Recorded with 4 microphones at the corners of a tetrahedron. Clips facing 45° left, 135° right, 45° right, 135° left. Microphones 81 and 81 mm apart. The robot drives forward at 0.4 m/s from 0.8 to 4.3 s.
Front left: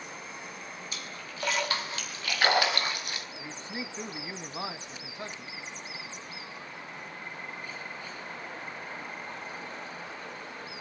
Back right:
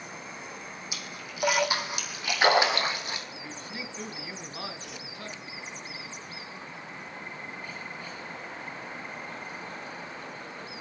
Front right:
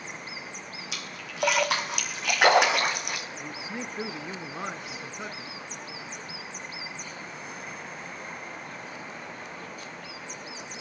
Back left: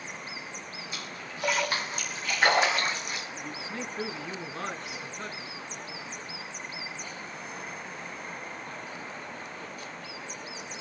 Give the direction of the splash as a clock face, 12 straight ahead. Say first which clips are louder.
Back right 1 dB, even; 2 o'clock.